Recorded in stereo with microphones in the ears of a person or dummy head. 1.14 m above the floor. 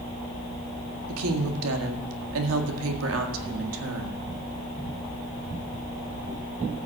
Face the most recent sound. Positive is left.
turn(degrees=-80)